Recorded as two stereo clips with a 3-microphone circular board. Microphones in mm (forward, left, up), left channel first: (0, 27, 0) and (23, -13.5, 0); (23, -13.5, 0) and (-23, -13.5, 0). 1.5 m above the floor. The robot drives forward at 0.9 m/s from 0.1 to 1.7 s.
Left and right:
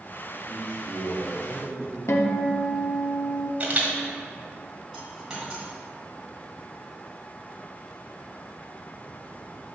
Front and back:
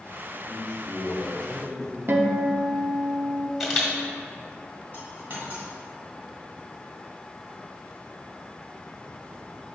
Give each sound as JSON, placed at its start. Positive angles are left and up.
{"t": 0.5, "sound": "a man speaking", "azimuth_deg": -55, "distance_m": 2.0}
{"t": 2.1, "sound": "a guitar", "azimuth_deg": 140, "distance_m": 0.6}
{"t": 3.6, "sound": "a camera shutter", "azimuth_deg": -95, "distance_m": 1.5}
{"t": 4.9, "sound": "a dropped coin", "azimuth_deg": -135, "distance_m": 2.5}